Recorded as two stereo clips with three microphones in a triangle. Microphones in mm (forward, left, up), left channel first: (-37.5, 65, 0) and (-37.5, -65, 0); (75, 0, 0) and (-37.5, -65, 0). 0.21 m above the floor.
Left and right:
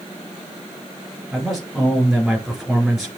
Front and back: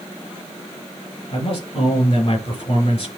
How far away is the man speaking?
About 4 m.